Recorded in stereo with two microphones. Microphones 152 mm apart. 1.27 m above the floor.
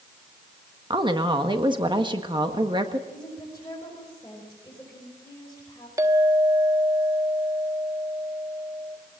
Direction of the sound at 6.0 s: 25° right (ahead or behind).